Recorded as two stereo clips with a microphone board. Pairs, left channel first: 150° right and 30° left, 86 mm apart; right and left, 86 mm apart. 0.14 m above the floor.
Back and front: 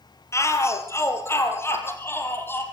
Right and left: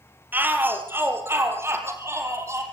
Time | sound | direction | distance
0.3 | a shout | 155° left | 4 m